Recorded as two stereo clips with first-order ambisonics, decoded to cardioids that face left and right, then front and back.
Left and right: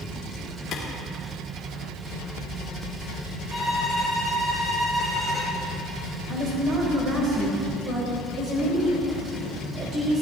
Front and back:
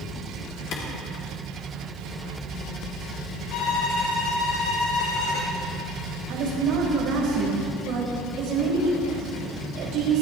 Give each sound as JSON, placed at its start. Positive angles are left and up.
{"t": 0.7, "sound": "a clap", "azimuth_deg": 40, "distance_m": 3.0}
{"t": 3.5, "sound": "a violin", "azimuth_deg": 5, "distance_m": 5.0}
{"t": 6.3, "sound": "a woman speaking", "azimuth_deg": -145, "distance_m": 3.5}